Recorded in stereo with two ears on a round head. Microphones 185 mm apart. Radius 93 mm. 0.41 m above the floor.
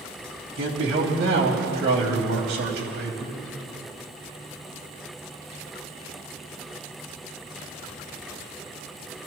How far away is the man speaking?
About 3 m.